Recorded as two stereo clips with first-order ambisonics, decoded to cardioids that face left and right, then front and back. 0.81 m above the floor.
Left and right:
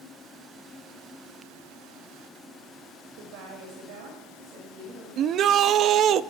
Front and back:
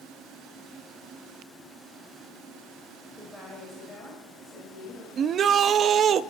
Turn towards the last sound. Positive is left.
turn(degrees=-130)